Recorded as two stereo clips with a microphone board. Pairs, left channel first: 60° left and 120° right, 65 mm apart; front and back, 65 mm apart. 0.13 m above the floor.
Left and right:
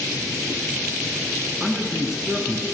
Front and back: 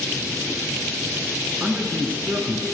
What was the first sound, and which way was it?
A man speaking, 165° left.